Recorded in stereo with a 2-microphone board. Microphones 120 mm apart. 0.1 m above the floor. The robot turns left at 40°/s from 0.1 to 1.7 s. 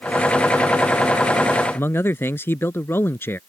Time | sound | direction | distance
1.7 | a man speaking | 20° left (ahead or behind) | ?